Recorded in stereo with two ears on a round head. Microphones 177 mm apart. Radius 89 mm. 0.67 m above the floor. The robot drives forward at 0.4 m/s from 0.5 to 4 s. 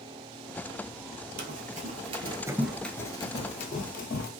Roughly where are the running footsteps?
Right.